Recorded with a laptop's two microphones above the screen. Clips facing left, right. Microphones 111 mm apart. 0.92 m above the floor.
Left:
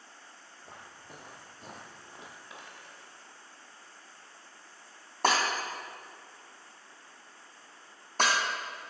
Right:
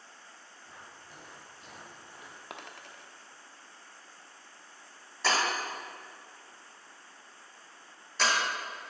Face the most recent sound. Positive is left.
turn(degrees=55)  # may be behind; listen again after turning